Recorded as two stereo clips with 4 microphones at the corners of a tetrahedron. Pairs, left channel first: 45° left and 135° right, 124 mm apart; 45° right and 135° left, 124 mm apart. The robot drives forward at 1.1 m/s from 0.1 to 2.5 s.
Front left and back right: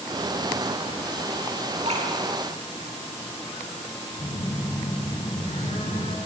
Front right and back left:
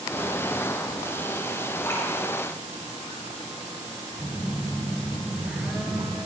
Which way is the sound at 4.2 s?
50° left.